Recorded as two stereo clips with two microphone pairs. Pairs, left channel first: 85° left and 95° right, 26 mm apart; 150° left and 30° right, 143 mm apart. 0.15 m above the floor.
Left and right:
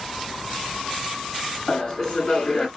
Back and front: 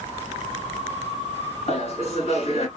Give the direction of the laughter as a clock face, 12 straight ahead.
7 o'clock.